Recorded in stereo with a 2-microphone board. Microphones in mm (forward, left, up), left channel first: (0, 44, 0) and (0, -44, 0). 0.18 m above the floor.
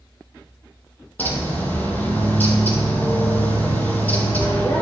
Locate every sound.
1.2 s a bird: 20° left (ahead or behind), 1.1 m